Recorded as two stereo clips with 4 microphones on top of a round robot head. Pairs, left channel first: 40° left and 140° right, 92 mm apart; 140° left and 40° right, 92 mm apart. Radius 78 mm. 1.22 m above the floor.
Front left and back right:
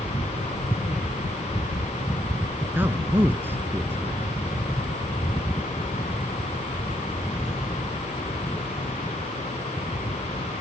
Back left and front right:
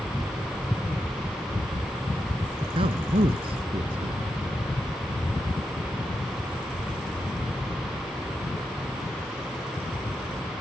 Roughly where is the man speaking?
Right.